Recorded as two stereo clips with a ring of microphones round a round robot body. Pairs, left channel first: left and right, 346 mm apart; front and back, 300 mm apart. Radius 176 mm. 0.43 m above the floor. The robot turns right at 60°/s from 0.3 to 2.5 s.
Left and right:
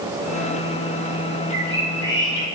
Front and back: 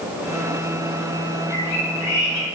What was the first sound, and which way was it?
A bird, 25° right.